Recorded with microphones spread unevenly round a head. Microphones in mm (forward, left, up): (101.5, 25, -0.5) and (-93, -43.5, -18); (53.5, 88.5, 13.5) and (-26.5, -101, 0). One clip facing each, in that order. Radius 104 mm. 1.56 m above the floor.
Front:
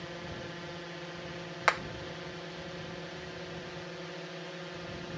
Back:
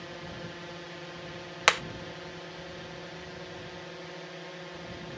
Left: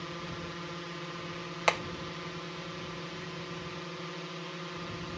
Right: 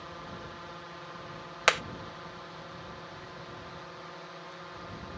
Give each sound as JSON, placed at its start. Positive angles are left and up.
{"t": 0.0, "sound": "a drone", "azimuth_deg": 110}
{"t": 1.7, "sound": "hammering", "azimuth_deg": 180}